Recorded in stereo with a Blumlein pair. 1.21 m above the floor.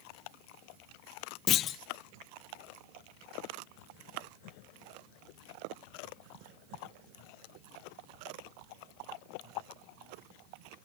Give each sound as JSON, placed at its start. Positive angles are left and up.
{"t": 1.5, "sound": "a clunk", "azimuth_deg": 30, "distance_m": 0.7}